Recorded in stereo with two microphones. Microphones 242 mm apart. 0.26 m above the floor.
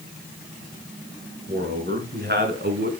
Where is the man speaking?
40° right (ahead or behind), 4.5 m; by 2.9 s 45° right (ahead or behind), 2.5 m.